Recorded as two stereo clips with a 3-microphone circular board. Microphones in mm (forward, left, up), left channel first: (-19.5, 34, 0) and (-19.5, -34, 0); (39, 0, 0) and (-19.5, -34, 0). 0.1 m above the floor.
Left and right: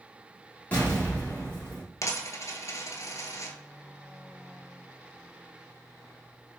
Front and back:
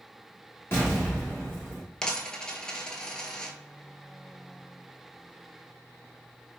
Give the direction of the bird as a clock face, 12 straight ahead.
I don't hear a bird.